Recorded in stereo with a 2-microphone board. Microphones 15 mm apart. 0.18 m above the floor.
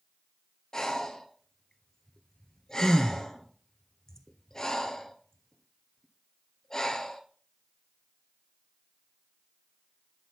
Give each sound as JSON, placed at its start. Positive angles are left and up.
{"t": 0.7, "sound": "breathing", "side_deg": 35, "distance_m": 1.3}